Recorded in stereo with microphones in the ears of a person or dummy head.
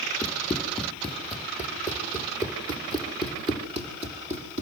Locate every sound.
0.2 s running footsteps: 10° left (ahead or behind), 3.5 m; by 4.6 s 40° right (ahead or behind), 4 m